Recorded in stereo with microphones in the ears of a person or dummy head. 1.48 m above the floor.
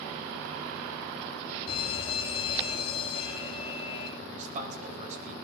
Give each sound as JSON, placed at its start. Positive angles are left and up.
{"t": 1.7, "sound": "a fire alarm", "side_deg": 30, "distance_m": 5.0}
{"t": 4.2, "sound": "a man speaking", "side_deg": -45, "distance_m": 7.0}